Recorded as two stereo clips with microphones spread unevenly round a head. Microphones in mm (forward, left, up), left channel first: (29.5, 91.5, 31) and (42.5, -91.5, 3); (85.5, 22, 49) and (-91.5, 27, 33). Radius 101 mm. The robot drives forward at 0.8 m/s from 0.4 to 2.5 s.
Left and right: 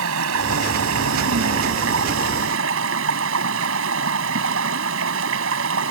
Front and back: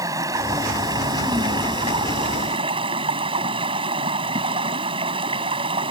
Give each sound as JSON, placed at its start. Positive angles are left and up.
{"t": 0.0, "sound": "running water", "azimuth_deg": -105}